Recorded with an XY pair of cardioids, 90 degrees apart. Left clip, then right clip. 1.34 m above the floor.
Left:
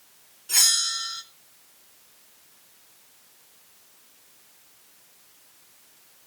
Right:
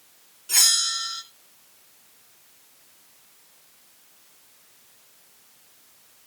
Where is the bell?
15° right, 3.5 m.